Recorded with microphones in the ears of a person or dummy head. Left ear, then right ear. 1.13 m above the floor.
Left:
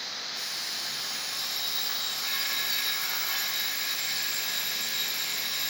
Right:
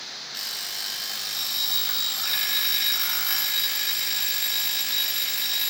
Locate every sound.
0.3 s an alarm clock: 30° right (ahead or behind), 0.6 m